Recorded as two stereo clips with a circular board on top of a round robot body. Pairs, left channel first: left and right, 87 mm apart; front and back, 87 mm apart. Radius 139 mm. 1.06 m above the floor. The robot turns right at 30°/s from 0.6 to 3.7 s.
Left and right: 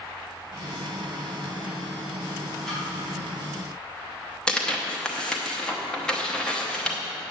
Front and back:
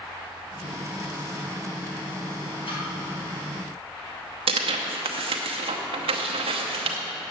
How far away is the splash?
About 3 m.